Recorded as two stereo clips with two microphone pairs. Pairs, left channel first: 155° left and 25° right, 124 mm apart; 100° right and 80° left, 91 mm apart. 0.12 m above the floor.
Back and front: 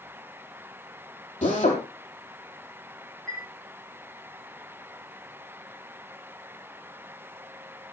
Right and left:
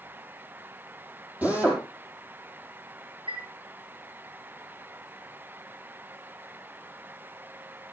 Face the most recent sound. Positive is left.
turn(degrees=75)